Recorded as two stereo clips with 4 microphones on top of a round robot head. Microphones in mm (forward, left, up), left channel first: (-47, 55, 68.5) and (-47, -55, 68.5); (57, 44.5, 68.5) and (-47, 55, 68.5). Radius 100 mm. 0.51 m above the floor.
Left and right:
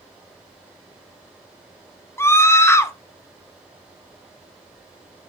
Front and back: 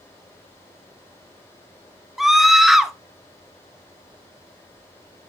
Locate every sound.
2.2 s a scream: 90° left, 1.3 m